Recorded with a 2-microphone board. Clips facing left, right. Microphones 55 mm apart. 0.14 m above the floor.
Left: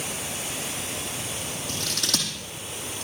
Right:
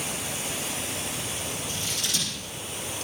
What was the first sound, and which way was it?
Scissors, 75° left (ahead or behind).